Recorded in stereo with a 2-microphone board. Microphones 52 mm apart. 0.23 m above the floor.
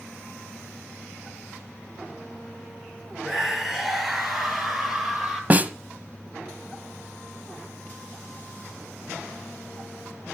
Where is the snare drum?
30° right (ahead or behind), 0.9 m.